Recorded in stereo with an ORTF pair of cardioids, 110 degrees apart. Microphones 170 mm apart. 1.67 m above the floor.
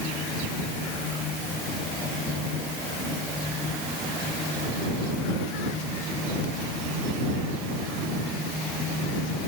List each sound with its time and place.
Only background noise.